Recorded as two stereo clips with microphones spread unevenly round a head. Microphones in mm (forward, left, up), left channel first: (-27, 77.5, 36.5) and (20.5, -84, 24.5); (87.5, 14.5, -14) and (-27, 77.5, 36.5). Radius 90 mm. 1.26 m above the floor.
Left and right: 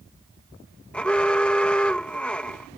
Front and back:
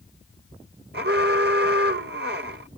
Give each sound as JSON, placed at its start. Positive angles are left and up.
{"t": 0.9, "sound": "an alarm", "azimuth_deg": -170}